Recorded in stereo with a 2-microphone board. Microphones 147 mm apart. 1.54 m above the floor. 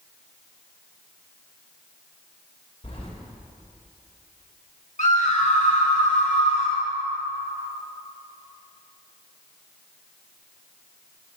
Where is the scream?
55° left (ahead or behind), 2.5 m.